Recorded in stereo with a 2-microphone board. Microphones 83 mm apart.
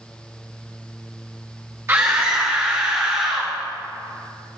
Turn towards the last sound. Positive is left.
turn(degrees=-20)  # may be behind; listen again after turning